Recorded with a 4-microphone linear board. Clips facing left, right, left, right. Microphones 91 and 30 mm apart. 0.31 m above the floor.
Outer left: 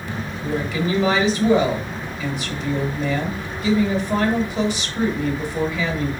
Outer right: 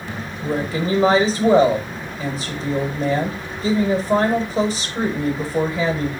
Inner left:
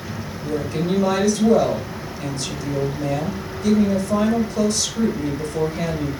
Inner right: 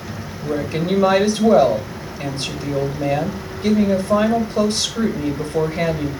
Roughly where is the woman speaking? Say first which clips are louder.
Outer right 1 dB, inner right 2 dB; right.